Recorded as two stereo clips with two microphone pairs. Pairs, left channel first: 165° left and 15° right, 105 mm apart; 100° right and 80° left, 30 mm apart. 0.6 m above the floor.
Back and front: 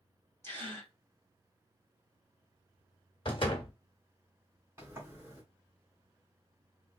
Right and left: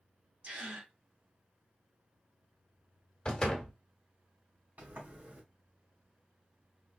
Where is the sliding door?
50° left, 2 m.